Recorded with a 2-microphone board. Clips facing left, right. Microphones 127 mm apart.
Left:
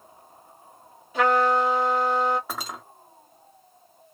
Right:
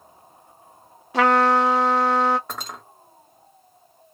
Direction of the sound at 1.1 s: 75° right (ahead or behind).